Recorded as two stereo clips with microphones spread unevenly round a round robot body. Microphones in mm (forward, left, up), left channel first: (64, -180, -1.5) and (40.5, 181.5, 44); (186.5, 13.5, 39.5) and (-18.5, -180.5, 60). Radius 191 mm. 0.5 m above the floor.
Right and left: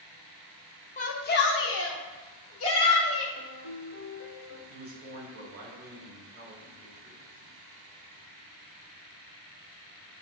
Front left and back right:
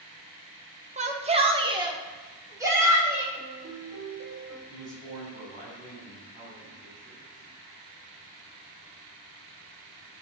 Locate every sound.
1.0 s a shout: 90° right, 0.8 m; by 3.2 s 50° right, 1.6 m
3.3 s a piano: 140° right, 1.4 m
4.7 s a man speaking: 160° left, 2 m